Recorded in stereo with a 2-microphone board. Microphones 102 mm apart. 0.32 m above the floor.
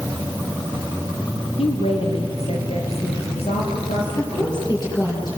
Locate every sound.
1.6 s a woman speaking: 75° left (ahead or behind), 4.5 m; by 4.6 s 80° left, 7.5 m
4.2 s a woman speaking: 45° left (ahead or behind), 7.5 m